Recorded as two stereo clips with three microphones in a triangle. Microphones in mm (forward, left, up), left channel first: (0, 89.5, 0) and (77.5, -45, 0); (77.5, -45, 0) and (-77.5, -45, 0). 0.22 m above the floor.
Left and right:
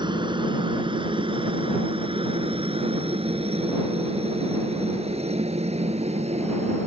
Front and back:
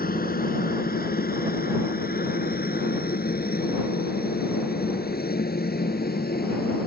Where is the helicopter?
Straight ahead; by 6.9 s 15° right.